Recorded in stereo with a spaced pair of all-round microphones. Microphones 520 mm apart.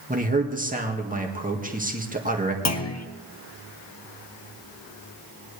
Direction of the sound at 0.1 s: 15° right (ahead or behind).